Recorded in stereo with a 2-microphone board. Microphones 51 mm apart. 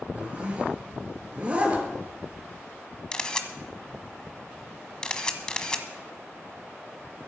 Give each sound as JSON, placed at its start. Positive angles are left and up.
{"t": 0.1, "sound": "a zipper", "side_deg": -25, "distance_m": 3.0}
{"t": 3.1, "sound": "a camera shutter", "side_deg": 15, "distance_m": 1.2}